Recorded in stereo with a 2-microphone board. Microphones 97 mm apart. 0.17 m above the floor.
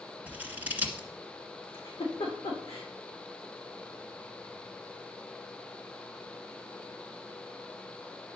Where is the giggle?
75° left (ahead or behind), 3 m.